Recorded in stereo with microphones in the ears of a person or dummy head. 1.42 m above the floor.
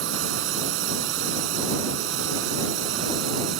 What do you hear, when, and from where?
0.0 s a drone: 80° right; by 3.6 s 75° right (ahead or behind)